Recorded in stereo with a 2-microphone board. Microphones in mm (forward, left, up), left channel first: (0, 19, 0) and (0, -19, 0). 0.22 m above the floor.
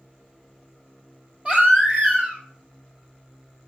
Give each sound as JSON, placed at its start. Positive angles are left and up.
{"t": 1.4, "sound": "a baby crying", "side_deg": -35, "distance_m": 2.0}